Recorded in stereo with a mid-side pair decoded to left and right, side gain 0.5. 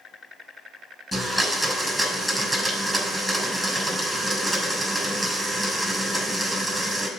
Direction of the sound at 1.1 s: Straight ahead.